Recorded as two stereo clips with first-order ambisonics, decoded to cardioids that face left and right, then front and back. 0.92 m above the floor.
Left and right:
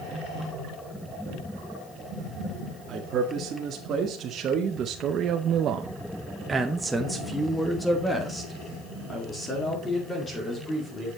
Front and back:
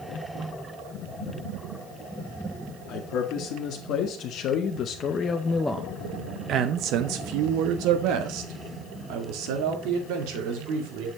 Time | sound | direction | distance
2.9 | a man speaking | 30° right | 1.9 m